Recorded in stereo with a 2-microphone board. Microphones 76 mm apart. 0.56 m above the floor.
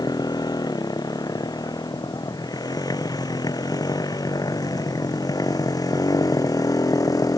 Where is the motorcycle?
60° left (ahead or behind); by 7.4 s 55° left (ahead or behind).